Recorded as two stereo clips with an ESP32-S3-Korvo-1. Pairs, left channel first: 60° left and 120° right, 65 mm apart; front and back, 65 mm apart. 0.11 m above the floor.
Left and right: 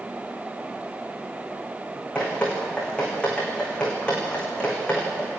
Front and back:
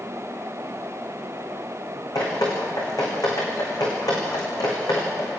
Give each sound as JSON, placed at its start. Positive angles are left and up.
{"t": 2.1, "sound": "dripping", "azimuth_deg": -15, "distance_m": 6.5}